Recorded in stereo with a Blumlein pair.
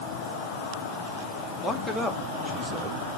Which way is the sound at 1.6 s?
5° left.